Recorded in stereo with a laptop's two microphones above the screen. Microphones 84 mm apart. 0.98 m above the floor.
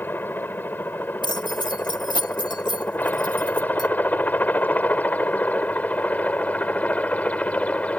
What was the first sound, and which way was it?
A helicopter, 25° left (ahead or behind).